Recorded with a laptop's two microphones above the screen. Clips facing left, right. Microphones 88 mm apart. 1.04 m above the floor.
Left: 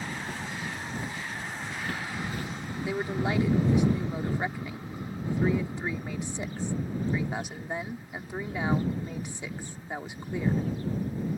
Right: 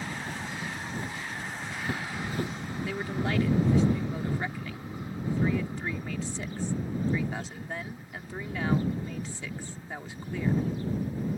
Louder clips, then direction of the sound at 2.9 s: Left 3 dB; 20° left (ahead or behind).